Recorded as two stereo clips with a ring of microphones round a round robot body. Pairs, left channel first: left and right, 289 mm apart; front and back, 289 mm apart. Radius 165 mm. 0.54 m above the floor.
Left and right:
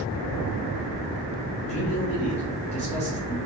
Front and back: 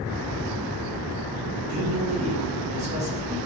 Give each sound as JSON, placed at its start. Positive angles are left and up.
{"t": 1.7, "sound": "a man speaking", "azimuth_deg": 135, "distance_m": 1.1}